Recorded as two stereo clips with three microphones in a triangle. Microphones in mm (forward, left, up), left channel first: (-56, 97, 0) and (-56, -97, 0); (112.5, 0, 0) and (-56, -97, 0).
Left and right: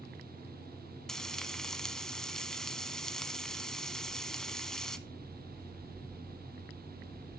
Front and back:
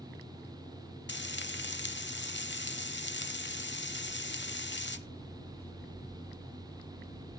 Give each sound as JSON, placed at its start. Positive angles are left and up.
{"t": 1.1, "sound": "frying", "azimuth_deg": 0, "distance_m": 0.8}